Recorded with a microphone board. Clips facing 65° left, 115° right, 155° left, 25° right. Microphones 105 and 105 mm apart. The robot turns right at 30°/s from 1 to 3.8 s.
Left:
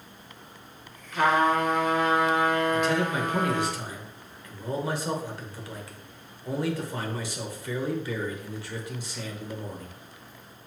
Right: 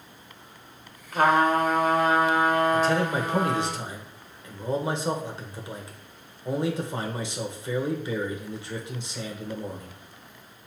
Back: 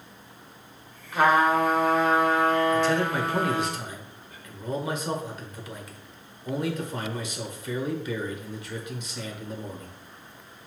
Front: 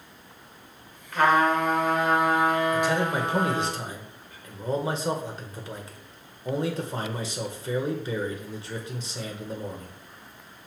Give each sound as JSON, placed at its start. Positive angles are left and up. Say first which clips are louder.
{"t": 1.1, "sound": "a trumpet", "louder": "right 2 dB, back 1 dB", "azimuth_deg": -135, "distance_m": 1.0}
{"t": 2.7, "sound": "a man speaking", "louder": "right 2 dB, back 1 dB", "azimuth_deg": -90, "distance_m": 0.9}